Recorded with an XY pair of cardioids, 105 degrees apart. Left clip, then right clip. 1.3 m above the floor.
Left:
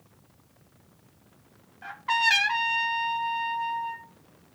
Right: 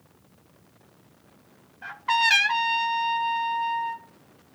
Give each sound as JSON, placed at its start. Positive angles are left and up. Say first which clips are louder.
{"t": 1.8, "sound": "a trumpet", "louder": "right 2 dB", "azimuth_deg": -20, "distance_m": 0.9}